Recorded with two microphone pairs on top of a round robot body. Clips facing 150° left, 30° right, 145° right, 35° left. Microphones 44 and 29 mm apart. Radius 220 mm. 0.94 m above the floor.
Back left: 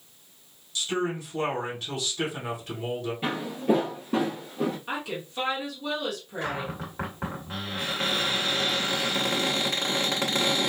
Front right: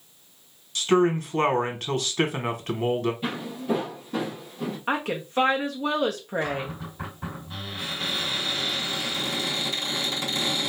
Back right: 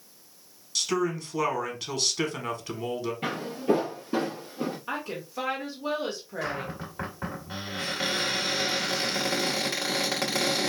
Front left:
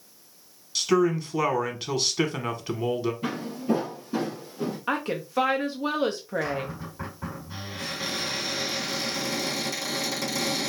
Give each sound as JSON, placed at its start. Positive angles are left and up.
{"t": 0.8, "sound": "a man speaking", "azimuth_deg": -45, "distance_m": 1.3}
{"t": 3.2, "sound": "footsteps", "azimuth_deg": -155, "distance_m": 1.3}
{"t": 4.9, "sound": "a woman speaking", "azimuth_deg": 5, "distance_m": 0.8}
{"t": 6.4, "sound": "a cupboard door", "azimuth_deg": 165, "distance_m": 1.9}